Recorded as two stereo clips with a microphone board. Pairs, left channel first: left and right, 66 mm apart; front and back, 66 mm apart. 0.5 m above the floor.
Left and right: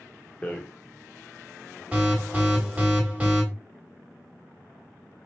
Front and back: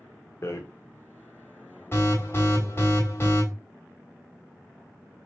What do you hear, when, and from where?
0.4 s a rattle: 25° left, 0.8 m
1.9 s an alarm: 25° right, 1.8 m